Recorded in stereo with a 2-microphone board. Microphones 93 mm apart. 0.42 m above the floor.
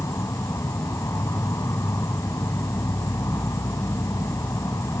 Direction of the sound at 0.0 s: 35° left (ahead or behind).